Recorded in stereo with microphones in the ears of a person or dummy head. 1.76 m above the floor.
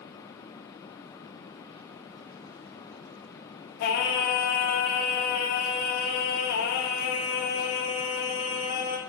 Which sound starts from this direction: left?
Singing, at 3.8 s.